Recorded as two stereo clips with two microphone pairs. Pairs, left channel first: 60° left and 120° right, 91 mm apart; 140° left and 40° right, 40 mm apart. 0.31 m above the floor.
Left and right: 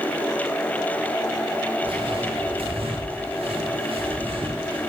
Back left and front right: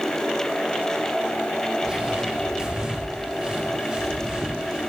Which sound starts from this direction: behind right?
Footsteps, at 1.8 s.